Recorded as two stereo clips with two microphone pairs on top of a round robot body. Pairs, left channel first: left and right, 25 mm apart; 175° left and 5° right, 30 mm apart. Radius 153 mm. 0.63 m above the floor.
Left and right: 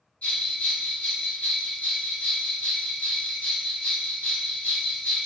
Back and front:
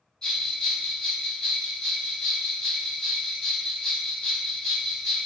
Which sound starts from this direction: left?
A bell, at 0.2 s.